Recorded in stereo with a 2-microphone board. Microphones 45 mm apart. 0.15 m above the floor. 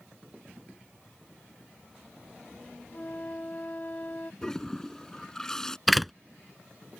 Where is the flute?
40° left (ahead or behind).